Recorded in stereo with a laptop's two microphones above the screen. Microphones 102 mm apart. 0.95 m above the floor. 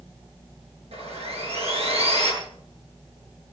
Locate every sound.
0.9 s sawing: 85° right, 7.5 m